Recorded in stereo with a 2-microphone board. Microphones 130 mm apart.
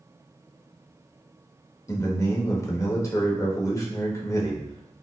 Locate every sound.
1.9 s a man speaking: 25° left (ahead or behind), 0.8 m